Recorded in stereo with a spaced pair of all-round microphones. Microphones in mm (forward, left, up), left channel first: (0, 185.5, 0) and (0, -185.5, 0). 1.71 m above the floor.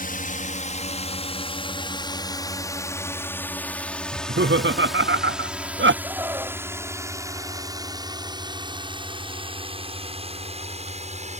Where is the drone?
20° left (ahead or behind); by 11.4 s 20° right (ahead or behind).